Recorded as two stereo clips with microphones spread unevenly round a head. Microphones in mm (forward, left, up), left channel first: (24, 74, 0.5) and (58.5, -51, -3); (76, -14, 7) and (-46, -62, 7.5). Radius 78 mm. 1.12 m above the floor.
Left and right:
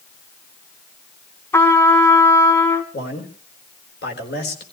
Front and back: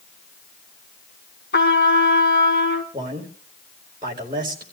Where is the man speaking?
135° left, 4 m.